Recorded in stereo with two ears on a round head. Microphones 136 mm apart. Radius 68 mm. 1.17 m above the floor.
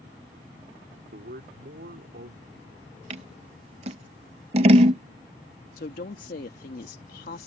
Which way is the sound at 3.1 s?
40° right (ahead or behind).